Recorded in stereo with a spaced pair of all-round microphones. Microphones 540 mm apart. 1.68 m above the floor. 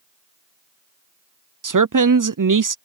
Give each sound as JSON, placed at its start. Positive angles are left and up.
{"t": 1.6, "sound": "a man speaking", "side_deg": -35}